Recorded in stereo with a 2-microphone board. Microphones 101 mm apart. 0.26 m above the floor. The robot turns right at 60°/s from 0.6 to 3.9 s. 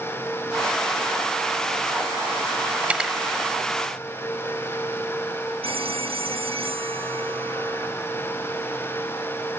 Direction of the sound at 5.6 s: 70° right (ahead or behind).